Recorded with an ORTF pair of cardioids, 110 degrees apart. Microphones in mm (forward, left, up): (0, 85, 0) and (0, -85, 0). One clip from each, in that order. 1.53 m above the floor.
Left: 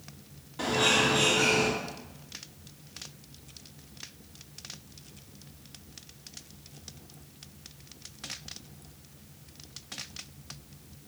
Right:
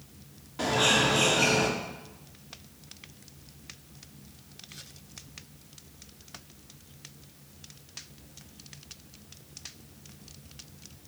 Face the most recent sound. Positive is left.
turn(degrees=-15)